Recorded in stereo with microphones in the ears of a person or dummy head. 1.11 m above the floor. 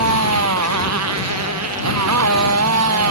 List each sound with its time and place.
0.0 s a motorcycle: 85° right